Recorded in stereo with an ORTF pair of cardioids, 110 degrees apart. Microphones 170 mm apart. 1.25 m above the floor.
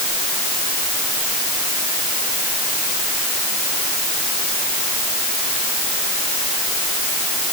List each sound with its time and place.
Only background noise.